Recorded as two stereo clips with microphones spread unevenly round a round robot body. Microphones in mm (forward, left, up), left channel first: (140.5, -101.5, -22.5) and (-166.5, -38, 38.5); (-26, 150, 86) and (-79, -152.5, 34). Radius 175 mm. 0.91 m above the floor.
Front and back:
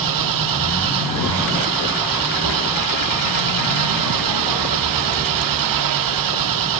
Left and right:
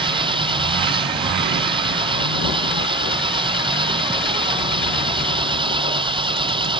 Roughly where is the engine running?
Behind.